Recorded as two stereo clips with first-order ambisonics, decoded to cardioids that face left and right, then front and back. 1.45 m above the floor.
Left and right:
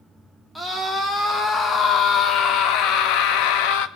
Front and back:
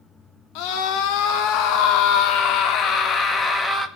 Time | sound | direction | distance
0.6 | a scream | 5° left | 3.5 m